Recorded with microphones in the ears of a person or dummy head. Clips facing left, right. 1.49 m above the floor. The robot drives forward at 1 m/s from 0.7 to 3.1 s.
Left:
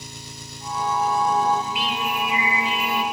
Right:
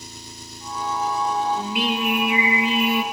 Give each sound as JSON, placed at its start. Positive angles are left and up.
{"t": 0.0, "sound": "an engine running", "side_deg": 45, "distance_m": 2.5}
{"t": 1.6, "sound": "singing", "side_deg": -45, "distance_m": 3.5}